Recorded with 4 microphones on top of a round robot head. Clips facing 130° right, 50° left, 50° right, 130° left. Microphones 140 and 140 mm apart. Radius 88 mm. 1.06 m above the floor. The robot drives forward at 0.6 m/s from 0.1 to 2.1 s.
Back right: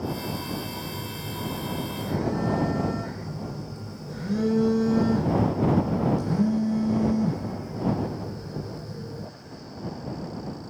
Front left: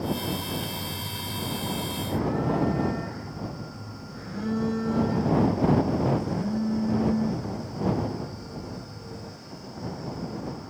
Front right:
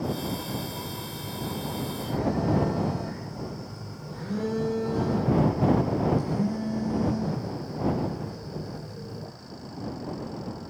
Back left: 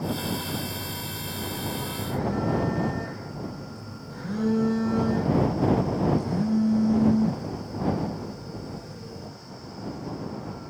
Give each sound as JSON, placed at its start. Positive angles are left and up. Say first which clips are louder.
{"t": 0.8, "sound": "a phone buzzing", "louder": "back right 1 dB, even", "azimuth_deg": -130, "distance_m": 9.5}